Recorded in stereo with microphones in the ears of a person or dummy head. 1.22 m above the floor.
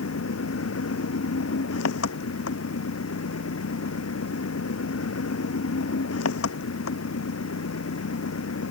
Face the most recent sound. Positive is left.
turn(degrees=90)